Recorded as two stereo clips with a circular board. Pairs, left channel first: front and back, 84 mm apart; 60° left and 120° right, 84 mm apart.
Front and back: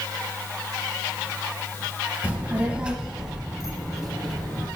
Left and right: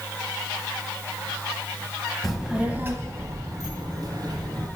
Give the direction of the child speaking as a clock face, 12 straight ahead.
7 o'clock.